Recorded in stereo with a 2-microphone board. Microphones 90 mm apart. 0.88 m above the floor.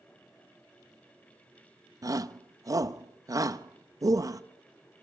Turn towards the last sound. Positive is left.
turn(degrees=-40)  # may be behind; listen again after turning